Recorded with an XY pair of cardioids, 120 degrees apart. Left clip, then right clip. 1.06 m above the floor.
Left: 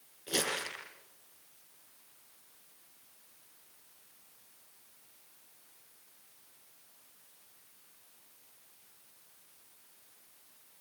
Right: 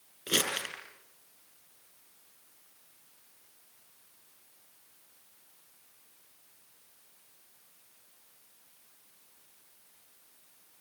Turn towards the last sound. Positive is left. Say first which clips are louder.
# right 3 dB
turn(degrees=-65)